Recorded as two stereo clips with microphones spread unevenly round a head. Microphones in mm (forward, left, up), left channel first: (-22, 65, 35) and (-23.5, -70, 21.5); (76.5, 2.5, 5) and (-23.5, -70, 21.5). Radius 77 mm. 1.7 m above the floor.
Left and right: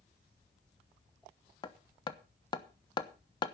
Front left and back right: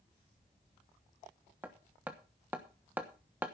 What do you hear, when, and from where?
1.6 s hammering: 140° left, 1.1 m